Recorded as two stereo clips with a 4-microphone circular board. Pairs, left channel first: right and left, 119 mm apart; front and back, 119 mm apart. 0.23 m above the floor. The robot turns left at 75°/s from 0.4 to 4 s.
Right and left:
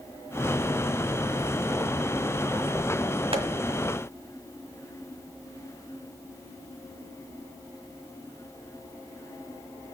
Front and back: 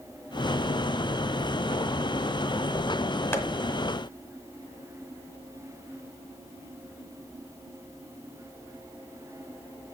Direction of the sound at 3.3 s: 65° left.